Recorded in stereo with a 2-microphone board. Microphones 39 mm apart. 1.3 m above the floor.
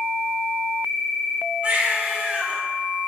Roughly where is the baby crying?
Right.